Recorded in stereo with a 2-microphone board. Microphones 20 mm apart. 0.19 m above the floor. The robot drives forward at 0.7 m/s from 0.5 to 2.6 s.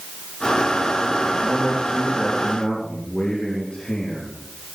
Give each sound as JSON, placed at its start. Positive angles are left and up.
{"t": 1.2, "sound": "a man speaking", "side_deg": 70, "distance_m": 4.0}